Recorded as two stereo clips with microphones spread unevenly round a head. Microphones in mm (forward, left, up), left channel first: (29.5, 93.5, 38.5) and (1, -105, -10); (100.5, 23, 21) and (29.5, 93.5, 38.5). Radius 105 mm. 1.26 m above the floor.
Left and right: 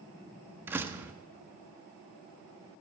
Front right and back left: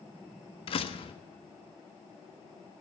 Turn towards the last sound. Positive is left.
turn(degrees=-15)